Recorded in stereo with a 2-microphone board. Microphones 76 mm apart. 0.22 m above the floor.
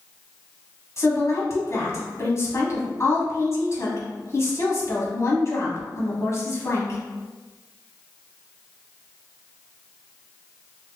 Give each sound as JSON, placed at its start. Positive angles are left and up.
{"t": 1.0, "sound": "a woman speaking", "side_deg": 40, "distance_m": 1.2}